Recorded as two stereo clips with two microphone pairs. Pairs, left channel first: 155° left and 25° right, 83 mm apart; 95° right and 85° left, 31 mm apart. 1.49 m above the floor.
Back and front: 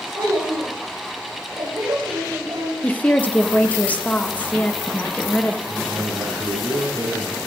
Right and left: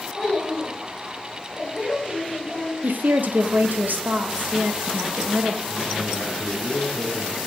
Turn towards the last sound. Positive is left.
turn(degrees=-30)